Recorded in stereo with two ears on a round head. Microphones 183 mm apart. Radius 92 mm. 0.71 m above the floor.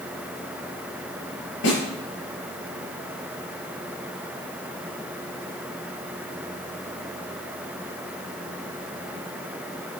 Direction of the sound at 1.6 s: 60° left (ahead or behind).